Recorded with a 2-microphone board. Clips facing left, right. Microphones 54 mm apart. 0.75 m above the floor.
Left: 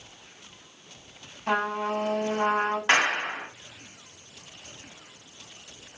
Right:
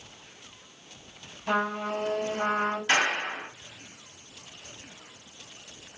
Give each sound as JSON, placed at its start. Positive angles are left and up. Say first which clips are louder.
{"t": 1.5, "sound": "a trumpet", "louder": "left 1 dB", "side_deg": 60, "distance_m": 2.0}
{"t": 2.9, "sound": "a clap", "louder": "left 3 dB", "side_deg": 60, "distance_m": 1.6}